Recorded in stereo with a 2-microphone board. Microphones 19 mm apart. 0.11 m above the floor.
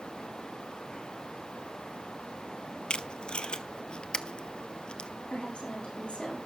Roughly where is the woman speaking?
Left.